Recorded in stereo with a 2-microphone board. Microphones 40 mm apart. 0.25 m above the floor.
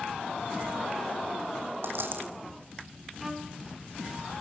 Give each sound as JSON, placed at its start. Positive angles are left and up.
{"t": 1.8, "sound": "a dropped coin", "side_deg": -70, "distance_m": 3.5}
{"t": 3.2, "sound": "a violin", "side_deg": 0, "distance_m": 3.0}